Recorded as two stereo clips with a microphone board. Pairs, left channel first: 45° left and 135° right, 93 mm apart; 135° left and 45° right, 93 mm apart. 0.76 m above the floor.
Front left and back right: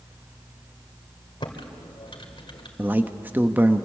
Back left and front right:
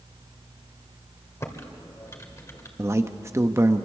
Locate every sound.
1.4 s typing on a keyboard: 75° left, 2 m
2.8 s a man speaking: 80° right, 1.0 m